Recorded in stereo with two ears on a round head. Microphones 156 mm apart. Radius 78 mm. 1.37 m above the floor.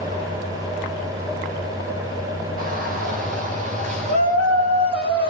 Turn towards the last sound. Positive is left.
turn(degrees=-30)  # may be behind; listen again after turning